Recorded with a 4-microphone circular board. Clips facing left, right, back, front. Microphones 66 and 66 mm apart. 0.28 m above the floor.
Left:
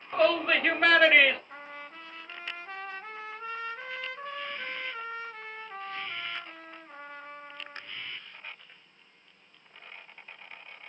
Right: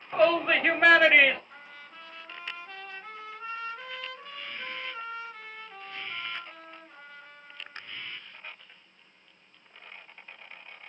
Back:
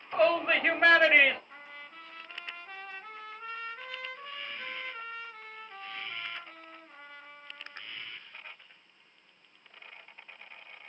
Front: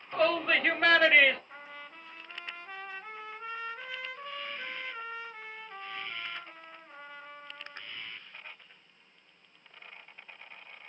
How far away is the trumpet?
About 1.0 m.